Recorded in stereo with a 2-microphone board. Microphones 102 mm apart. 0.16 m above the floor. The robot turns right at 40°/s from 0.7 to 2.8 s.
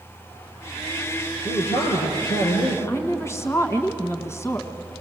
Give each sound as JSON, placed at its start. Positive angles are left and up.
{"t": 1.4, "sound": "a man speaking", "azimuth_deg": 90, "distance_m": 4.0}
{"t": 2.9, "sound": "a woman speaking", "side_deg": 25, "distance_m": 1.6}